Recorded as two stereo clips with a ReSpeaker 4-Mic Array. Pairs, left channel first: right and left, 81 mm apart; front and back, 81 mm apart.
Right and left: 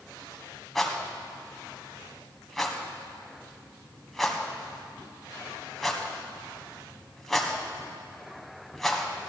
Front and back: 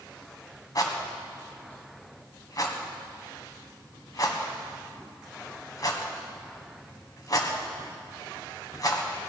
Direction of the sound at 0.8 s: 5° right.